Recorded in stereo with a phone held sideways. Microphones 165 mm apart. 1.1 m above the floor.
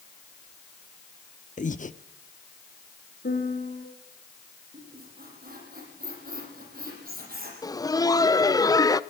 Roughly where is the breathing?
Left.